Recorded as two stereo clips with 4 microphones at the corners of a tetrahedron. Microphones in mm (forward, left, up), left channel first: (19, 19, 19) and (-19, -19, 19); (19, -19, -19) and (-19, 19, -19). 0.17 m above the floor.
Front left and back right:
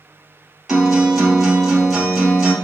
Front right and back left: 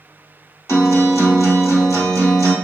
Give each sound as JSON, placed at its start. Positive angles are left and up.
{"t": 0.7, "sound": "a guitar", "azimuth_deg": -50, "distance_m": 2.0}